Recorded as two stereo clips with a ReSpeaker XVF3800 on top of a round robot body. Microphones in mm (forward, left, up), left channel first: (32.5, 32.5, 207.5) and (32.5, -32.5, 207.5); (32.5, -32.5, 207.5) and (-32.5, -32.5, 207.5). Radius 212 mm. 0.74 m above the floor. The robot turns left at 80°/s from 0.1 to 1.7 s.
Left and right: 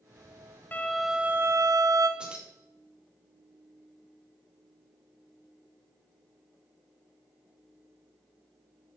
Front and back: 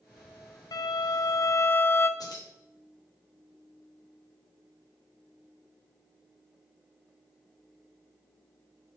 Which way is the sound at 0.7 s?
25° left.